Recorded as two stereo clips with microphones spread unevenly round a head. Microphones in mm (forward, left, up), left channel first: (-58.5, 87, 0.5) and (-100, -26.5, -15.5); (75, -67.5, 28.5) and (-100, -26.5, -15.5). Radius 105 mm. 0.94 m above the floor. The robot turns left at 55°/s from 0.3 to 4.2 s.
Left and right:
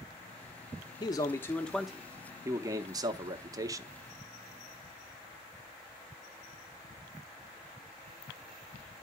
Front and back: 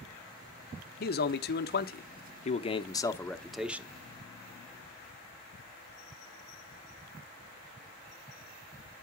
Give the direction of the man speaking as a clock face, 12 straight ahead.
12 o'clock.